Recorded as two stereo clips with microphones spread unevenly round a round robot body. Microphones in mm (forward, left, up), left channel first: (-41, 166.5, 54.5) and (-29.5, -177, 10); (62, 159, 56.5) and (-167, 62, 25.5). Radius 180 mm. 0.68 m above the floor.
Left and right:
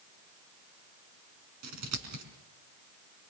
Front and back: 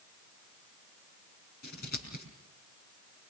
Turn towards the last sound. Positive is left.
turn(degrees=-40)